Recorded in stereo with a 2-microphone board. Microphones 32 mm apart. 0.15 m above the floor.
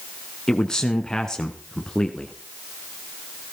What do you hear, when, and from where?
0.5 s a man speaking: 20° left (ahead or behind), 1.2 m